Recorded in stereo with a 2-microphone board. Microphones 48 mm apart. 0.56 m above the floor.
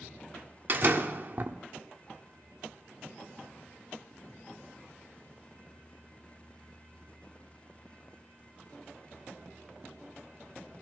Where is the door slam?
45° right (ahead or behind), 1.1 m.